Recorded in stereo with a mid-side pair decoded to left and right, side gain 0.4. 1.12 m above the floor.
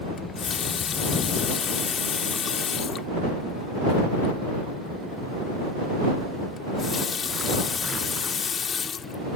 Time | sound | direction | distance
0.2 | a running tap | 55° left | ?